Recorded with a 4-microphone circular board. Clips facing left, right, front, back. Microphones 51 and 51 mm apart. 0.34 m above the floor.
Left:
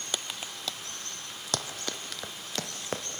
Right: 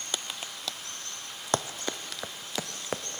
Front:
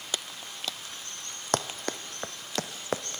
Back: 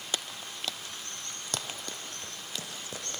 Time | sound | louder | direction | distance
1.5 | running footsteps | right 5 dB, front 9 dB | 30° right | 0.9 m